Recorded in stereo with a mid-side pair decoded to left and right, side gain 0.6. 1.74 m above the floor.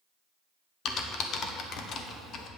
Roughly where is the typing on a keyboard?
Ahead left.